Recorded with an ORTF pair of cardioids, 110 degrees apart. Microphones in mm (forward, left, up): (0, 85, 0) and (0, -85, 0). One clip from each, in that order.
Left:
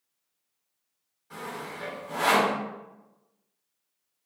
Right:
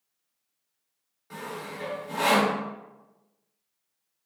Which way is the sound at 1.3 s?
40° right.